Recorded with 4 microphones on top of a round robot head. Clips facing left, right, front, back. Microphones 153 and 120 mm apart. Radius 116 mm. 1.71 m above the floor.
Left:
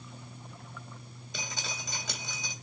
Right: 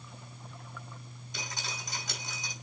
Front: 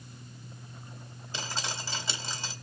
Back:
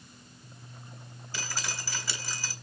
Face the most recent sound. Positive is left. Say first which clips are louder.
# left 1 dB, front 2 dB
turn(degrees=65)